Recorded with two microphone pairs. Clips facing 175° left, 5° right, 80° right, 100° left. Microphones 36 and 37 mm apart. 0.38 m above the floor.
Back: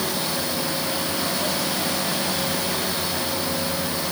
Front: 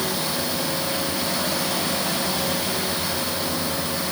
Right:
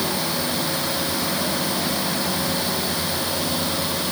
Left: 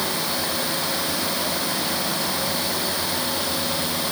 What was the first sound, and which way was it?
Only background noise.